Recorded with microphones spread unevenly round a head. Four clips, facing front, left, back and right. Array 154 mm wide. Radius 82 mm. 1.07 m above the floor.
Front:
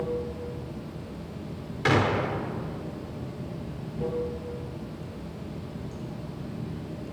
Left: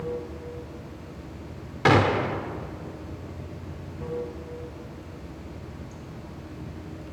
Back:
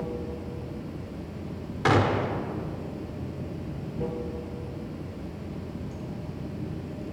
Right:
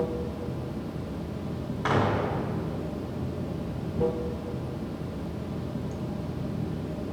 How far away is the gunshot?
About 1.2 m.